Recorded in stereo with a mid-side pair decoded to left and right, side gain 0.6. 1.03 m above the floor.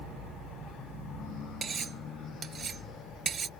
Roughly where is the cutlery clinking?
Ahead right.